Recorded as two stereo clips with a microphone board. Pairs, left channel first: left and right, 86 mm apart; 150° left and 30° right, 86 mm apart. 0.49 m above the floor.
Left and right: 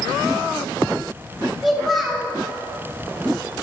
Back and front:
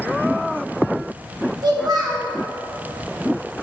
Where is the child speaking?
Straight ahead, 2.5 m.